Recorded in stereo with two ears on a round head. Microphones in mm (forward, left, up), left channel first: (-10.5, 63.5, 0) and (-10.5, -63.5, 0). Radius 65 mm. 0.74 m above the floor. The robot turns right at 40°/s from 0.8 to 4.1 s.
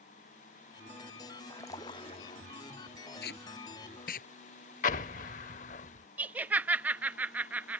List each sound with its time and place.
1.5 s a splash: 15° left; by 2.4 s 50° left
3.2 s tape being pulled: 75° left (ahead or behind); by 4.3 s 70° left (ahead or behind)
4.8 s an explosion: 60° left (ahead or behind)
6.2 s laughter: 10° right (ahead or behind)